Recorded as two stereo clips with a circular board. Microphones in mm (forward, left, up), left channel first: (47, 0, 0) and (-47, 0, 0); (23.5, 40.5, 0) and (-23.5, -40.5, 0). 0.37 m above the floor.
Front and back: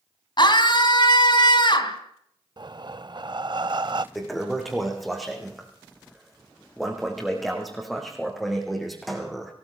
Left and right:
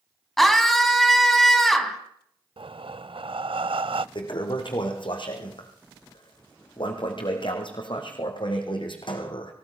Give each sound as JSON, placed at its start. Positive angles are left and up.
{"t": 0.4, "sound": "a scream", "azimuth_deg": -30, "distance_m": 3.5}
{"t": 2.6, "sound": "breathing", "azimuth_deg": -140, "distance_m": 0.5}
{"t": 4.2, "sound": "a toilet flushing", "azimuth_deg": 90, "distance_m": 5.0}